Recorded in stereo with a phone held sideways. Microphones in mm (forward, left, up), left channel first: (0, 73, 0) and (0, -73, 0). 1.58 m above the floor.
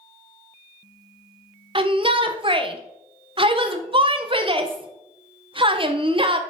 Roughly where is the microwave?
I don't hear a microwave.